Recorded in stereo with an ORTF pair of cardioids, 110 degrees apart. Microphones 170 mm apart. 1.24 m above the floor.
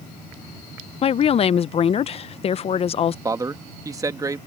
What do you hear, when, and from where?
1.0 s a woman speaking: 35° left
3.2 s a man speaking: 20° right